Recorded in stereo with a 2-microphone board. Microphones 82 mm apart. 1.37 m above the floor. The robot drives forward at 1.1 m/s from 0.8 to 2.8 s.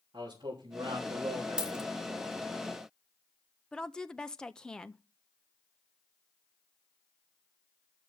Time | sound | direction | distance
0.1 | a man speaking | 80° right | 3 m
1.6 | a dropped coin | 15° right (ahead or behind) | 0.9 m
3.7 | a woman speaking | 10° left (ahead or behind) | 0.5 m